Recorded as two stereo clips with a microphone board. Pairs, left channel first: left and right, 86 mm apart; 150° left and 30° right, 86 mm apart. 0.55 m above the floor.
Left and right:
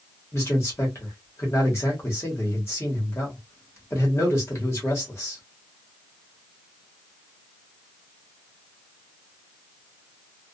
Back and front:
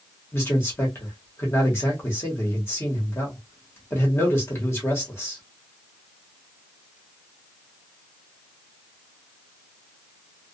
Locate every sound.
0.3 s a man speaking: 115° left, 1.1 m